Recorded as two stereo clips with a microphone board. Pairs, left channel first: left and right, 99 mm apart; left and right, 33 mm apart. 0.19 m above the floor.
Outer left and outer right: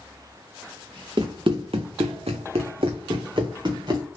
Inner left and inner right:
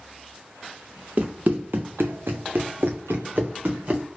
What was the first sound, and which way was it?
Running footsteps, 50° right (ahead or behind).